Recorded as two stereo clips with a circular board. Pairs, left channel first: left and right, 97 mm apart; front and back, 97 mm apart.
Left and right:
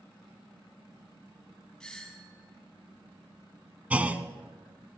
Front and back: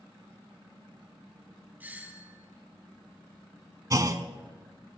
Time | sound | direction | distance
1.8 | a doorbell | 155° left | 1.7 m
3.9 | a clunk | 155° right | 0.7 m